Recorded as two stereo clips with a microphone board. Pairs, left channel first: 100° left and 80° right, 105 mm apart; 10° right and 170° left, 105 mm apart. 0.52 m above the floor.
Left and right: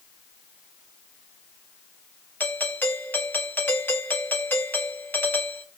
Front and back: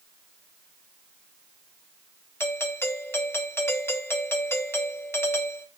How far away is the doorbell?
About 1.3 m.